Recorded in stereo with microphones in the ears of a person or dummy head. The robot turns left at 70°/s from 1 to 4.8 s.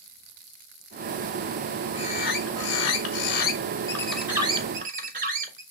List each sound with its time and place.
1.9 s a bird: 155° left, 1.4 m; by 5.6 s 45° right, 1.4 m